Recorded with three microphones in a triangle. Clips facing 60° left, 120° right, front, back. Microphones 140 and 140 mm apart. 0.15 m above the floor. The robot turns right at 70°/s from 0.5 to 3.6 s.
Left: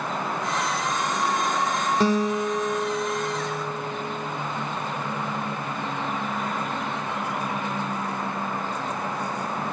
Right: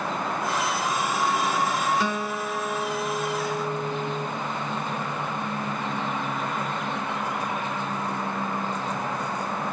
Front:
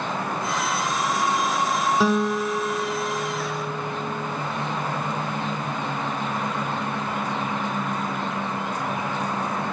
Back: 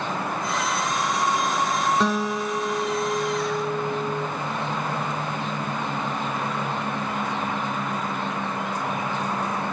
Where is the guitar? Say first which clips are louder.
Left 6 dB, front 3 dB; 80° left, 0.5 m; by 4.3 s 165° right, 0.5 m.